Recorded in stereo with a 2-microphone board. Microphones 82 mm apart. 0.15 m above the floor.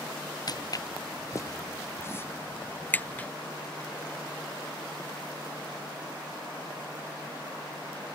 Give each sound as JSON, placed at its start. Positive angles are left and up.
{"t": 0.5, "sound": "footsteps", "side_deg": 45}